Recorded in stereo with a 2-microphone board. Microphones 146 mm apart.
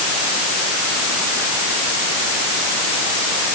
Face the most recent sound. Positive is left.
No sound to turn to.